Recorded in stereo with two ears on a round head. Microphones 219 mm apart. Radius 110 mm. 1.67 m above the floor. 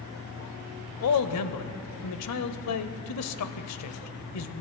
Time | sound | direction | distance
1.0 | a man speaking | 70° left (ahead or behind) | 0.7 m